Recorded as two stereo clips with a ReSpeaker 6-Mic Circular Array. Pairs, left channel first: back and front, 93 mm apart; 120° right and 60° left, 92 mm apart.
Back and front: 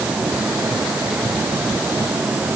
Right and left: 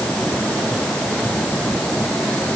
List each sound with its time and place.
Only background noise.